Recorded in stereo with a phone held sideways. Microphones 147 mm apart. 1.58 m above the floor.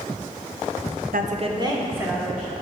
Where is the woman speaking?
75° right (ahead or behind), 0.7 m; by 2.5 s 5° right (ahead or behind), 2 m.